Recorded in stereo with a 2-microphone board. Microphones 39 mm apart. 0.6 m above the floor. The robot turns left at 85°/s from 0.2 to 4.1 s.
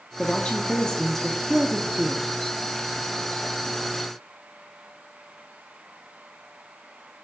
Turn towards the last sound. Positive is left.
turn(degrees=120)